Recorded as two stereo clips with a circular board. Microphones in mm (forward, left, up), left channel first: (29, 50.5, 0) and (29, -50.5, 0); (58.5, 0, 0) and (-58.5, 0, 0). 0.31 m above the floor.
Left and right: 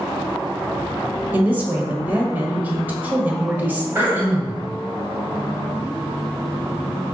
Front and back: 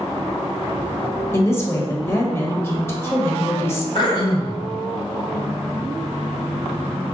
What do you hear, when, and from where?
1.3 s a woman speaking: 40° right, 1.1 m
4.0 s throat clearing: 25° right, 1.3 m